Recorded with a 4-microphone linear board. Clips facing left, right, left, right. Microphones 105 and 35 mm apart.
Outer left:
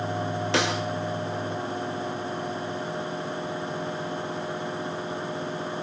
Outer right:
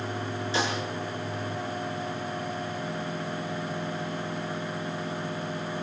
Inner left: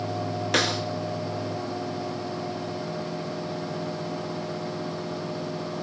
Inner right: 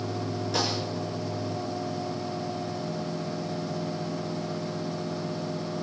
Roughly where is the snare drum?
Left.